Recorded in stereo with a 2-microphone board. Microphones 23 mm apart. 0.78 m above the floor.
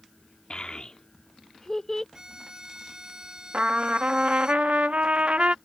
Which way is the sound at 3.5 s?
65° right (ahead or behind).